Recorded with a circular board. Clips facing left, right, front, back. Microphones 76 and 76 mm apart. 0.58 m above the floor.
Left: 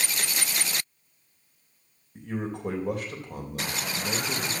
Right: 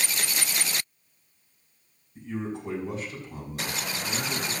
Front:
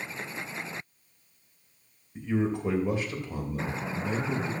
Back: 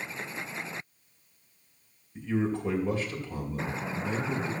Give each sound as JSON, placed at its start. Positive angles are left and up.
{"t": 2.1, "sound": "a man speaking", "azimuth_deg": 70, "distance_m": 3.0}